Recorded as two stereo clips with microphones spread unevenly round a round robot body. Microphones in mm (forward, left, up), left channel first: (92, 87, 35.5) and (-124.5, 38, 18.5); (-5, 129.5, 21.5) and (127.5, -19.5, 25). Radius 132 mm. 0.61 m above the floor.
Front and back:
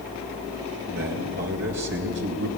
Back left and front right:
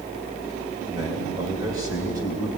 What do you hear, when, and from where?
0.9 s a man speaking: 125° right, 3 m